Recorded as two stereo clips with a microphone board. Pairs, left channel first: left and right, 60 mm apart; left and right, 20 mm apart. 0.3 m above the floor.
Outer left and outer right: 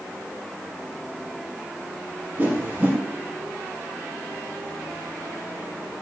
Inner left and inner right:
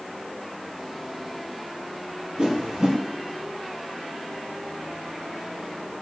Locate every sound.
2.4 s a whoosh: 30° right (ahead or behind), 2.5 m